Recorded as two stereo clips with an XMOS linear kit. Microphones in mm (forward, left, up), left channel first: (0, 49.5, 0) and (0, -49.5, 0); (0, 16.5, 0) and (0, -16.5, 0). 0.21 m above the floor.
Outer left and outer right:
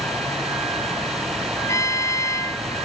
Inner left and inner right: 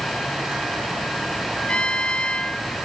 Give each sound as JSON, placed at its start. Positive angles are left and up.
{"t": 1.7, "sound": "a trumpet", "side_deg": 35}